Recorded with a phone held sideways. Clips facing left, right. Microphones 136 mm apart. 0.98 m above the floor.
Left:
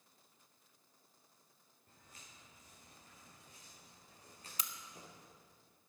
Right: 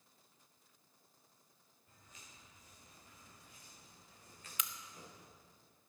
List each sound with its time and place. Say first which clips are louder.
1.9 s footsteps: even; 50° left (ahead or behind), 5.5 m; by 5.3 s 30° left (ahead or behind), 5 m
4.6 s a crack: right 2 dB; 35° left (ahead or behind), 0.7 m